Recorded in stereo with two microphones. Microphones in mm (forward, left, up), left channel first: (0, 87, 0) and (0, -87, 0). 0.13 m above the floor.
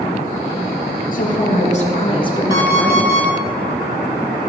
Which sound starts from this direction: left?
A woman speaking, at 1.1 s.